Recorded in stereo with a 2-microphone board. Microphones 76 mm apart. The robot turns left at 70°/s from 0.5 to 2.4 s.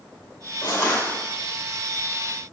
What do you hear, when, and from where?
0.6 s crushing: 50° left, 2.5 m; by 1.1 s 15° left, 2.5 m